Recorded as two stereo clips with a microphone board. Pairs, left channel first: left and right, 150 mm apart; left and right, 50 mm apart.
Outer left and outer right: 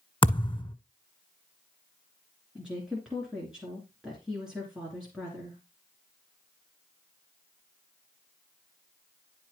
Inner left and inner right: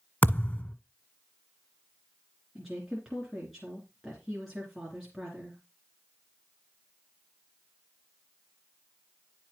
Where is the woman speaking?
5° right (ahead or behind), 2.5 m.